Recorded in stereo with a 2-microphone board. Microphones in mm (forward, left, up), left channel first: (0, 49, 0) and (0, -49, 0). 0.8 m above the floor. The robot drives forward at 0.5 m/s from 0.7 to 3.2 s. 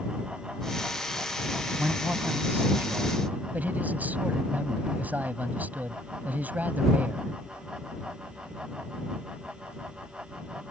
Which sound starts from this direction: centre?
A man speaking, at 1.8 s.